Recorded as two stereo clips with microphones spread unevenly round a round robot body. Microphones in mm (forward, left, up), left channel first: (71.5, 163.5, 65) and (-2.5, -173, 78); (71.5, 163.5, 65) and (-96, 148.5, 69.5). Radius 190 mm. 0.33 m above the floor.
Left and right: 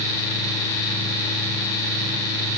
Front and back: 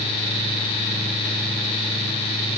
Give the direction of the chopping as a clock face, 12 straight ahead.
I don't hear chopping.